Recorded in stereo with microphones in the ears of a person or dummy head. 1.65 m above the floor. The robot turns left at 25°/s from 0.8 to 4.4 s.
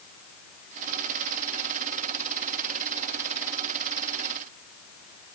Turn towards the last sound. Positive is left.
No sound to turn to.